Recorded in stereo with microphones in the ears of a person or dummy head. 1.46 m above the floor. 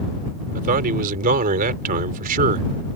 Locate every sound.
0.6 s a man speaking: 50° right (ahead or behind)